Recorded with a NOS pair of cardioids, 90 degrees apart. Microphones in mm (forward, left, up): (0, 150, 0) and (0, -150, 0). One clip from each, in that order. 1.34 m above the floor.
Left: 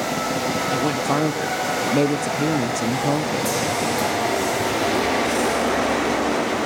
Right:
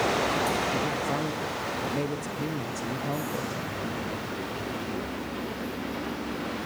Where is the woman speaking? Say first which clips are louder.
Left 7 dB; 50° left, 0.6 m.